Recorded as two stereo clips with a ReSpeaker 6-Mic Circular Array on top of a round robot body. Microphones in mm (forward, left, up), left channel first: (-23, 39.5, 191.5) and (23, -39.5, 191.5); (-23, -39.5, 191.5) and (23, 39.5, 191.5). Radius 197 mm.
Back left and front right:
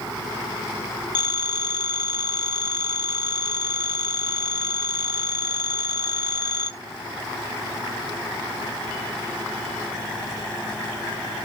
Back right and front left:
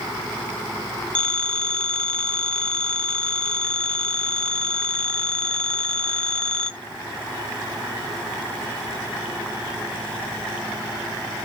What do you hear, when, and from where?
1.1 s a phone ringing: 160° left, 0.5 m